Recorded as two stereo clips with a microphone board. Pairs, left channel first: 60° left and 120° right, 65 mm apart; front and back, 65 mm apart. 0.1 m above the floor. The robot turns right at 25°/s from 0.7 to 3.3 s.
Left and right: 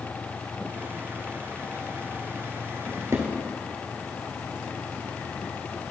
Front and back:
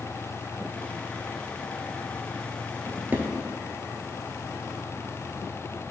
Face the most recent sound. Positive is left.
turn(degrees=-120)